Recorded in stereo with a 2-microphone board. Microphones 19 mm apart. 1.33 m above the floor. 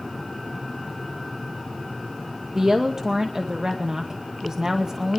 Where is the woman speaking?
35° right (ahead or behind), 0.8 m.